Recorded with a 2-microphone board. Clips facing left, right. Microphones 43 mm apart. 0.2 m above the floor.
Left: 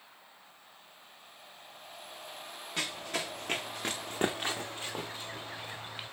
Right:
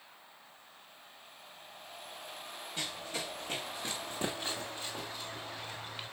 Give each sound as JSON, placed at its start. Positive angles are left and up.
{"t": 2.8, "sound": "running footsteps", "side_deg": 85, "distance_m": 2.5}